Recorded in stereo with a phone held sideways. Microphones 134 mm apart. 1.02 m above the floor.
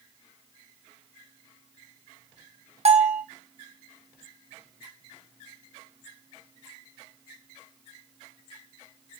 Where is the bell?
50° right (ahead or behind), 1.3 m.